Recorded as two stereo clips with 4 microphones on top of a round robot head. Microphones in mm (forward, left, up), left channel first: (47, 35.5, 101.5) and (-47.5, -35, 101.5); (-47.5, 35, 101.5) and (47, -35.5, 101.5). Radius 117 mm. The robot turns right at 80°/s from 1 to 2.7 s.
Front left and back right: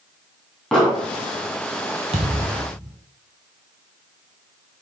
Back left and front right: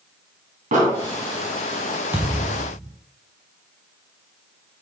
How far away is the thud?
About 0.7 m.